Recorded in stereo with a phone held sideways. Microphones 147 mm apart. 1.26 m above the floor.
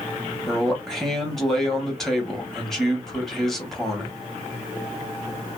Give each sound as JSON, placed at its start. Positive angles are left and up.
{"t": 0.5, "sound": "a man speaking", "side_deg": 0, "distance_m": 1.2}